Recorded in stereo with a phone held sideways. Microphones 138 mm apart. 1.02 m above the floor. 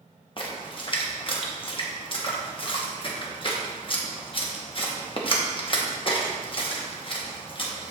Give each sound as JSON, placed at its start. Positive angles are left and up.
{"t": 0.4, "sound": "a splash", "side_deg": 40, "distance_m": 1.0}